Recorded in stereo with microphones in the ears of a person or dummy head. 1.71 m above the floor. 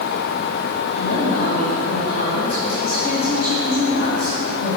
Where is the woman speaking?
50° left (ahead or behind), 2.5 m.